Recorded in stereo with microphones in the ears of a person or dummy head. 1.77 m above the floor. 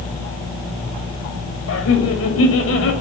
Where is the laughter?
80° left, 8 m; by 2.9 s 85° left, 8 m.